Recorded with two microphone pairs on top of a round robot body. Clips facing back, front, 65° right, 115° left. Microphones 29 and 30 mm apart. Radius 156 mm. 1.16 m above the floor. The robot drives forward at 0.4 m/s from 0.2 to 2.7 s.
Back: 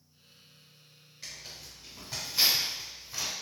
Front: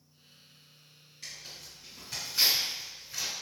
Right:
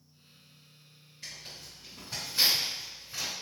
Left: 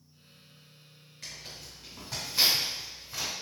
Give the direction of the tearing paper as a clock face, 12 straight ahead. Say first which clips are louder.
Even, left 1 dB; 8 o'clock.